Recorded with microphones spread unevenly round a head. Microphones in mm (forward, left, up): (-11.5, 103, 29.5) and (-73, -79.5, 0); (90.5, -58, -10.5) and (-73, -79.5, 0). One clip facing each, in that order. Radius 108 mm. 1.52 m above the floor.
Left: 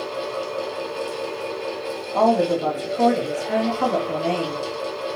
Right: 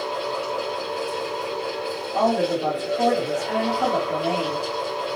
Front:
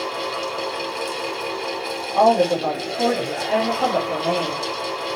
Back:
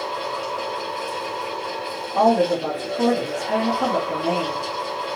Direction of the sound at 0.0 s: 10° right.